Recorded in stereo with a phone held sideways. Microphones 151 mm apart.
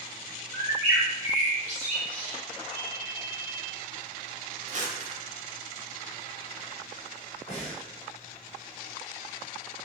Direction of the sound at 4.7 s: 50° right (ahead or behind).